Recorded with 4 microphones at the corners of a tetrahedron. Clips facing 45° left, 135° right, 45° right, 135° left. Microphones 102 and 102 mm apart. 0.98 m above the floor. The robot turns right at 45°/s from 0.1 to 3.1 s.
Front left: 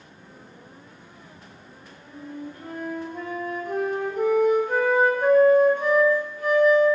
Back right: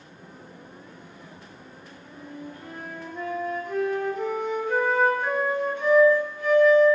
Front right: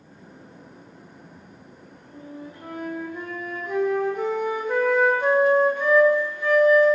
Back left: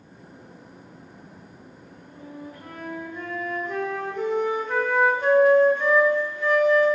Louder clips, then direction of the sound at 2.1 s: Front left 3 dB, front right 1 dB; 15° right.